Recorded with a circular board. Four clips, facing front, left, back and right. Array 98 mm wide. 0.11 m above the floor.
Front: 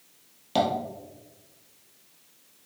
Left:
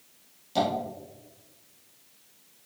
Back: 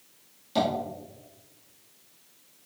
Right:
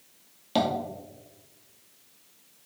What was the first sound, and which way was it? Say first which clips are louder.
Tapping: right 1 dB, front 1 dB; 50° right.